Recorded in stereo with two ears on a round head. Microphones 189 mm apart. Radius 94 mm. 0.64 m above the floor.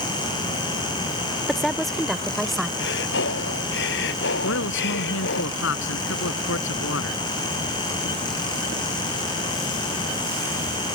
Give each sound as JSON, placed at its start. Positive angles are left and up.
{"t": 1.5, "sound": "a woman speaking", "side_deg": 0}
{"t": 2.8, "sound": "breathing", "side_deg": 60}
{"t": 4.4, "sound": "a man speaking", "side_deg": 65}